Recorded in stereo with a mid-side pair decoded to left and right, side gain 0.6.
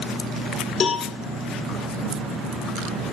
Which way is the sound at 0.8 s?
30° left.